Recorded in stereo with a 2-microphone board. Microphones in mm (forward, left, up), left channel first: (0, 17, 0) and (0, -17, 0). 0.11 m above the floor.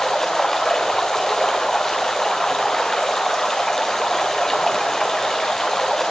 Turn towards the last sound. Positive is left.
turn(degrees=10)  # may be behind; listen again after turning